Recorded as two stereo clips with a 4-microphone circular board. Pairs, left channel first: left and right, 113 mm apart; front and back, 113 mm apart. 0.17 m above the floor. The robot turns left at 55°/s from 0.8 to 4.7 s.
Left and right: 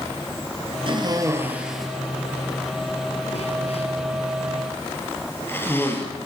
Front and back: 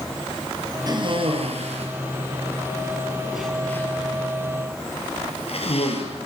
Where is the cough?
130° right, 4.5 m; by 6.1 s 20° left, 4.5 m.